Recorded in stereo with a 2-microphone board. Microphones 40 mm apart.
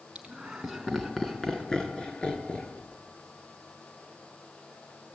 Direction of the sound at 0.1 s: 20° right (ahead or behind).